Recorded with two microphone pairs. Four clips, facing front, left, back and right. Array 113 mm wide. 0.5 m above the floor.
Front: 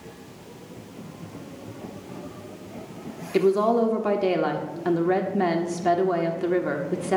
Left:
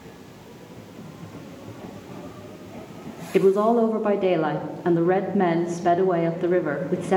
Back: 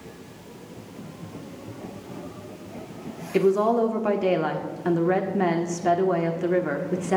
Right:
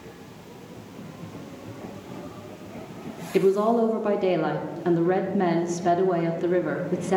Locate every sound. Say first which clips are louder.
3.3 s a woman speaking: left 2 dB, even; 65° left, 0.8 m